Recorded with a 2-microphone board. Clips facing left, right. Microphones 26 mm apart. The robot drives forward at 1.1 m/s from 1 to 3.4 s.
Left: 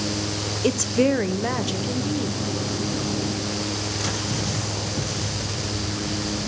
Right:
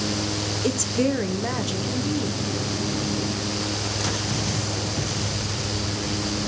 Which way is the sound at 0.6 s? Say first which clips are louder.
Left 4 dB; 25° left (ahead or behind).